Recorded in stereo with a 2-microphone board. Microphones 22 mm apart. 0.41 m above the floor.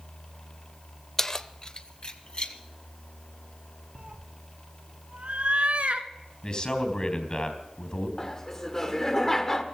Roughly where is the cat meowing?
Right.